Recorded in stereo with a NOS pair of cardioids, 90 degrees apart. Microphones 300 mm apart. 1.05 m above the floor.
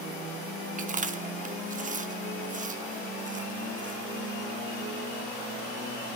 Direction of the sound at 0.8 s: 25° right.